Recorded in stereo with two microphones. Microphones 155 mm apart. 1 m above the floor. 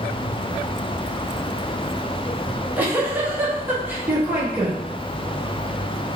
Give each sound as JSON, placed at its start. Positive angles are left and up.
{"t": 2.5, "sound": "a giggle", "side_deg": -10, "distance_m": 0.7}